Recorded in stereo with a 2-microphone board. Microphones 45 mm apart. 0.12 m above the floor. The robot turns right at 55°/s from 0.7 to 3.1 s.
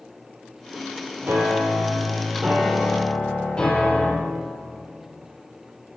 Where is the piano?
75° right, 3 m; by 4.1 s 25° left, 3 m.